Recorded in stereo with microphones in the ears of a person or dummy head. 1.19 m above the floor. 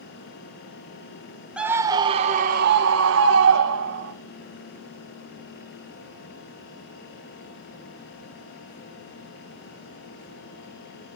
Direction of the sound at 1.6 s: 5° right (ahead or behind).